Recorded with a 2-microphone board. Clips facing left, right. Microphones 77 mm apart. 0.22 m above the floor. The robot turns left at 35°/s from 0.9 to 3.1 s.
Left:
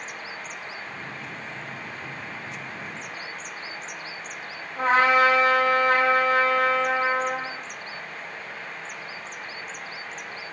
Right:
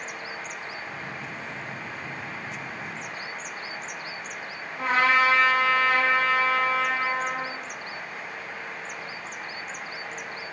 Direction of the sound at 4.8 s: 45° left (ahead or behind).